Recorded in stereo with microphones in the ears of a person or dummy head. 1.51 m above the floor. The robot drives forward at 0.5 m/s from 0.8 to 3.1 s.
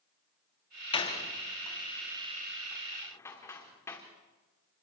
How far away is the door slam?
About 1.9 m.